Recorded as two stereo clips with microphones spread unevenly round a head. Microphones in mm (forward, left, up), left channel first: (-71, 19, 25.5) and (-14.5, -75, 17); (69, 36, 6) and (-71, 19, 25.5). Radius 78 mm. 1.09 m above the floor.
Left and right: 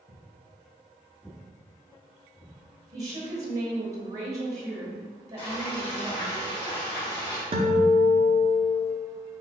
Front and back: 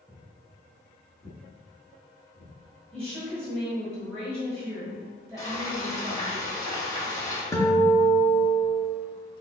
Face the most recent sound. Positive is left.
turn(degrees=-65)